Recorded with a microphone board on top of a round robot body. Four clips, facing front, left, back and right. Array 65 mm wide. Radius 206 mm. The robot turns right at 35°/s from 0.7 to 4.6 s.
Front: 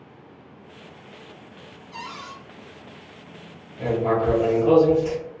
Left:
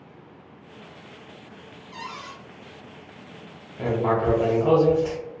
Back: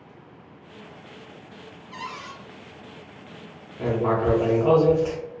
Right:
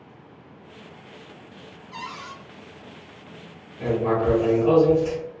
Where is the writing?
105° left, 0.5 m; by 5.2 s 130° left, 0.5 m.